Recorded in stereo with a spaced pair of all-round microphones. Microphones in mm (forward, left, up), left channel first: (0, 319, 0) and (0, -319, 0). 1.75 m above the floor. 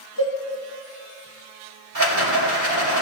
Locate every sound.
0.2 s a cowbell: 30° left (ahead or behind), 3 m
1.9 s a rattle: 65° right (ahead or behind), 2.5 m